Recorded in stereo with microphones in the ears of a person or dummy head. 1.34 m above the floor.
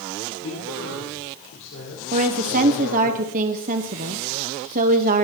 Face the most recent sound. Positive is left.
turn(degrees=-45)  # may be behind; listen again after turning